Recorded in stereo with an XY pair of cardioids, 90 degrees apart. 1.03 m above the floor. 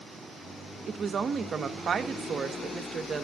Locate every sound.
0.9 s a woman speaking: 55° right, 1.1 m